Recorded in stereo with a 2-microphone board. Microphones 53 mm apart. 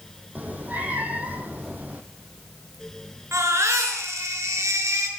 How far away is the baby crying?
About 5.5 m.